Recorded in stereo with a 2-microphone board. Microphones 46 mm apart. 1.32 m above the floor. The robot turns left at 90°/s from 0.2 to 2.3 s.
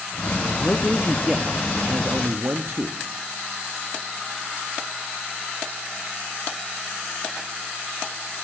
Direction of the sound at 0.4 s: 60° left.